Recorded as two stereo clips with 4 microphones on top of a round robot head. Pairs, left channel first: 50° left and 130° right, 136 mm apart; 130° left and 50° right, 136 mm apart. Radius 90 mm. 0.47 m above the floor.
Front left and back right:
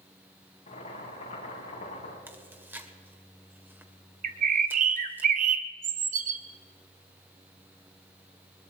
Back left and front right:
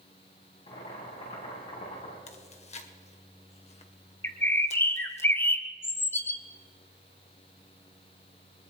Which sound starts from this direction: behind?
Chewing, at 2.3 s.